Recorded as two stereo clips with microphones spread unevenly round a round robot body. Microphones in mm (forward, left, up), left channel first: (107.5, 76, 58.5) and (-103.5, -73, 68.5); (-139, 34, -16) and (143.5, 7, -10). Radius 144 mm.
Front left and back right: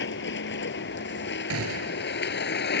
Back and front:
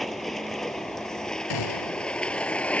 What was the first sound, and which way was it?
A vehicle, 85° left.